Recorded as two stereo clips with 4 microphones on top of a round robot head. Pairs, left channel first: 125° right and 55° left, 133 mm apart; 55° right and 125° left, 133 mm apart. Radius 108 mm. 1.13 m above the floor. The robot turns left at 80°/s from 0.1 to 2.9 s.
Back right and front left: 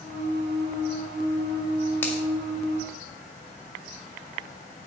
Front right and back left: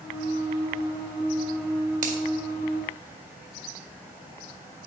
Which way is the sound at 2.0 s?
160° left.